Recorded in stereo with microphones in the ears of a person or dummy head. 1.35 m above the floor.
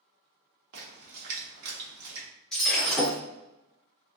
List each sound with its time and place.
0.7 s a splash: 55° right (ahead or behind), 0.9 m
2.5 s breaking glass: 5° left (ahead or behind), 1.2 m